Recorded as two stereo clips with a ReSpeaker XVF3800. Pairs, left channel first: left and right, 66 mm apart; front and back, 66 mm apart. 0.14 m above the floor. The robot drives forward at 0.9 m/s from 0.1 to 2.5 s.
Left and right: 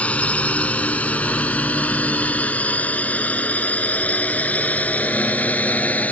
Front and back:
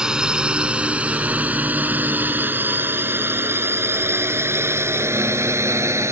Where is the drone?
120° left; by 6.1 s 150° left.